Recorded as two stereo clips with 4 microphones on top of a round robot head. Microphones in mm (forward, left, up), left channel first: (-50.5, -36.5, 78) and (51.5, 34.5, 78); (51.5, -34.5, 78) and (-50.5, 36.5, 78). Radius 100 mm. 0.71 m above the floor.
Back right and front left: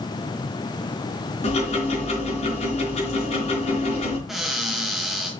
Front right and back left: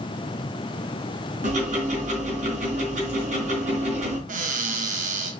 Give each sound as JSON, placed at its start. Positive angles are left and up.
{"t": 1.4, "sound": "ticking", "azimuth_deg": 175, "distance_m": 4.0}
{"t": 4.3, "sound": "a cupboard door", "azimuth_deg": 125, "distance_m": 1.8}